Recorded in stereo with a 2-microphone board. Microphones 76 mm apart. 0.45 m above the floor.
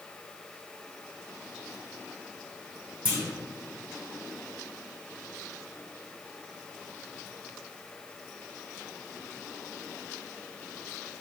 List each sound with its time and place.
3.0 s a clunk: 20° right (ahead or behind), 1.3 m